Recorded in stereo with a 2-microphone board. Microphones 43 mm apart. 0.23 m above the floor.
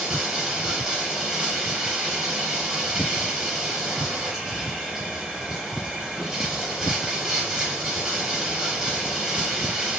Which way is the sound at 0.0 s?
15° right (ahead or behind).